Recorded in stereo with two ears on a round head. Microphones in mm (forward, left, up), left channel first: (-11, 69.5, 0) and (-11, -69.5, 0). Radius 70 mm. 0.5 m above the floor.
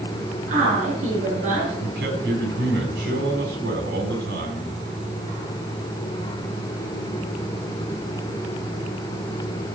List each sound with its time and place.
0.5 s a woman speaking: 50° right (ahead or behind), 8 m
1.8 s a man speaking: 75° right (ahead or behind), 5 m